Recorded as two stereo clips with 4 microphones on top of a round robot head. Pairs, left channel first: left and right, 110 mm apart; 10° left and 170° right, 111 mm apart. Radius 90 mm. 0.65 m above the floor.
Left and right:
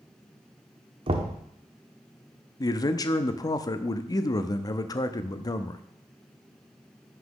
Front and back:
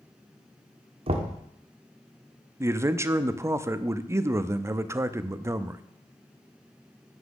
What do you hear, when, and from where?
1.1 s knocking: 130° right, 1.1 m
2.6 s a man speaking: 130° left, 0.6 m